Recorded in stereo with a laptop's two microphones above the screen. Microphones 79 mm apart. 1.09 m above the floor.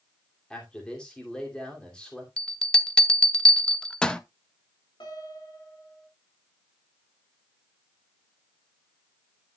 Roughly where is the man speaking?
Centre.